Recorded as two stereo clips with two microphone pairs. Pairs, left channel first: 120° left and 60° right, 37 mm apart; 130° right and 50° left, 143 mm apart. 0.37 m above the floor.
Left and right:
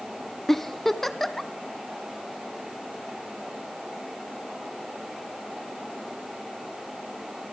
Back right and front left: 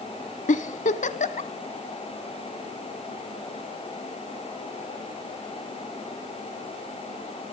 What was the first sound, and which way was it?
A giggle, 160° right.